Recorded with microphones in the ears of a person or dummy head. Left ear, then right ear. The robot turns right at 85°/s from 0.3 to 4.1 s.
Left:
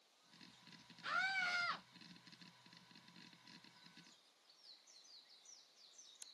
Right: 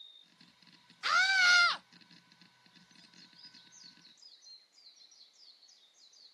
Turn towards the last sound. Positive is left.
turn(degrees=160)